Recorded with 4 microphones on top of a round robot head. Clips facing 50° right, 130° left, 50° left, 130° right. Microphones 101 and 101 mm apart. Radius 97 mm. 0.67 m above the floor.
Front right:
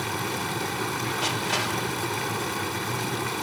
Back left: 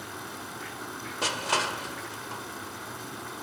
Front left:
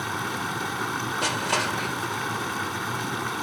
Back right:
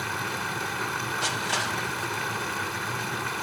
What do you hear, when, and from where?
0.0 s running water: 25° right, 0.9 m
1.2 s crushing: 80° left, 2.5 m